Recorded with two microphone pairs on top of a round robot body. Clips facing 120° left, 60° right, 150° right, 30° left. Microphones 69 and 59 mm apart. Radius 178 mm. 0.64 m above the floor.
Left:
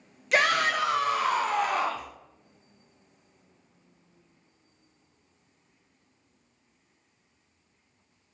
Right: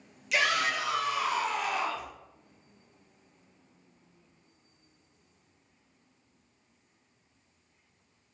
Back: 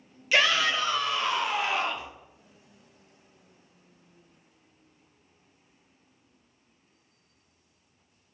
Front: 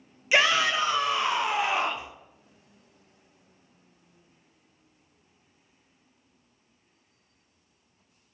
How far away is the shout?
About 0.7 m.